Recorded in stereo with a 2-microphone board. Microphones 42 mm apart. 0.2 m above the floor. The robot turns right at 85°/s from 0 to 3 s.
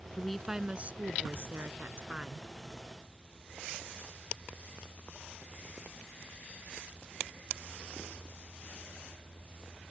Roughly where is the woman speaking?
Behind.